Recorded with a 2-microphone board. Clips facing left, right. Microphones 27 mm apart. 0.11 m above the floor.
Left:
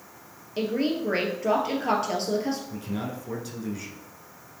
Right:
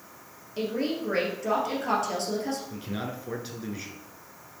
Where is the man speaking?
25° right (ahead or behind), 1.6 m.